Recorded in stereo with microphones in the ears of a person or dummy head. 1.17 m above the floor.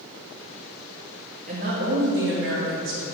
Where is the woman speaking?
30° right (ahead or behind), 0.8 m; by 3.0 s 65° right (ahead or behind), 1.3 m.